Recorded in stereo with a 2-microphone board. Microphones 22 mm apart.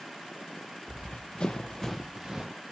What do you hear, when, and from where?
0.9 s running footsteps: 60° left (ahead or behind), 1.1 m; by 2.5 s 35° right (ahead or behind), 0.9 m